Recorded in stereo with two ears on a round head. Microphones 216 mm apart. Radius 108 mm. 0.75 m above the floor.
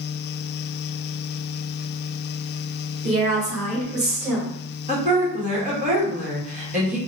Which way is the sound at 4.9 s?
30° right (ahead or behind).